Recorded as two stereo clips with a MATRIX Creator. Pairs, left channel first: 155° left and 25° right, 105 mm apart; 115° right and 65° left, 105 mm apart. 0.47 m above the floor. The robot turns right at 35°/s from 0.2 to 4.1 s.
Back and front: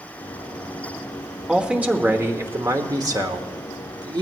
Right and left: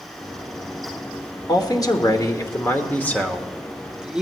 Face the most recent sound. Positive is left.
turn(degrees=-10)